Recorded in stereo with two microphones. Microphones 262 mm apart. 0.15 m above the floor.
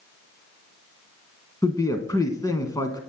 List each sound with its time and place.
1.6 s a man speaking: 15° left (ahead or behind), 1.0 m